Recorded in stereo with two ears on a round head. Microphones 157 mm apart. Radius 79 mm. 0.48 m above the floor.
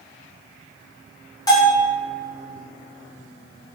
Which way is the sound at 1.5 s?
20° left (ahead or behind).